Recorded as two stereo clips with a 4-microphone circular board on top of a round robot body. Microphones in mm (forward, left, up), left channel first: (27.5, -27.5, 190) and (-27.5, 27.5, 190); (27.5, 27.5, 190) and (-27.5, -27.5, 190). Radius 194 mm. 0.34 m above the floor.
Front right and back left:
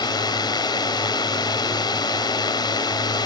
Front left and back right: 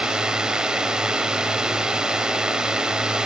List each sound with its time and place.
0.0 s a drone: 55° right